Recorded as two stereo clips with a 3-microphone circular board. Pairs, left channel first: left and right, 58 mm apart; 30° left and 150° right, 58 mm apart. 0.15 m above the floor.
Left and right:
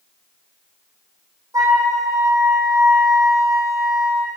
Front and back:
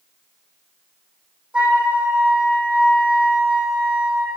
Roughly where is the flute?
Right.